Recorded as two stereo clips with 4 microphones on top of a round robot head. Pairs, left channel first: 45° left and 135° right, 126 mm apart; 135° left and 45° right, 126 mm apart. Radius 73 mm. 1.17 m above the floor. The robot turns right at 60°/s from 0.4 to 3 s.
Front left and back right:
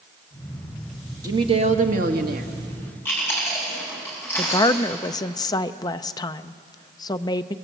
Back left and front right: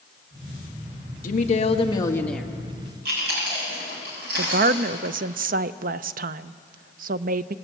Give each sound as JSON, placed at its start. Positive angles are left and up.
{"t": 1.2, "sound": "a woman speaking", "azimuth_deg": 155, "distance_m": 1.9}
{"t": 3.0, "sound": "chewing", "azimuth_deg": -35, "distance_m": 7.0}
{"t": 4.4, "sound": "a woman speaking", "azimuth_deg": -20, "distance_m": 0.7}